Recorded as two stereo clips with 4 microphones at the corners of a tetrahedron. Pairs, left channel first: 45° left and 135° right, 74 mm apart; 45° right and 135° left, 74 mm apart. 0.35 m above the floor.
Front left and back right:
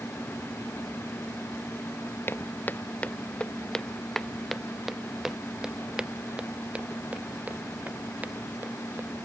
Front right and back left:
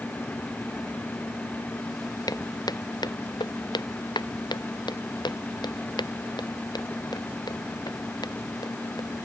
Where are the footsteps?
15° right; by 9.1 s 70° right.